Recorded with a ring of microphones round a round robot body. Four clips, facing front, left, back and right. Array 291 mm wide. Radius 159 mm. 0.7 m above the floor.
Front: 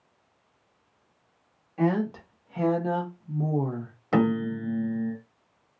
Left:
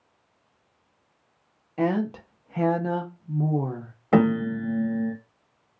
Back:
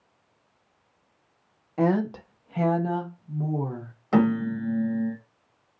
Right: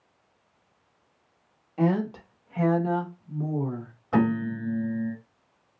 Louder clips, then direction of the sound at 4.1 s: Left 4 dB, back 2 dB; 80° left.